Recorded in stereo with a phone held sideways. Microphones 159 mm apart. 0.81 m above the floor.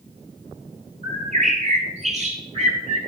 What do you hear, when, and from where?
1.0 s a bird: 45° right (ahead or behind), 2 m